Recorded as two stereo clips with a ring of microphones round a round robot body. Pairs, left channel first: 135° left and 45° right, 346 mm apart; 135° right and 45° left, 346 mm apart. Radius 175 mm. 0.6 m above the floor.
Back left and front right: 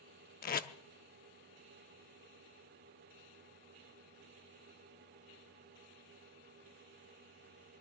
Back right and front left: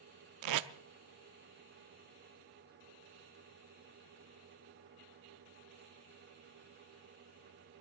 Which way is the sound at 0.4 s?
75° left.